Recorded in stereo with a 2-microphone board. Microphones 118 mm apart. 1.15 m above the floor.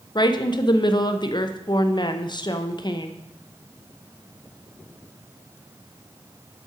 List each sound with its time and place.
0.1 s a woman speaking: 40° left (ahead or behind), 0.6 m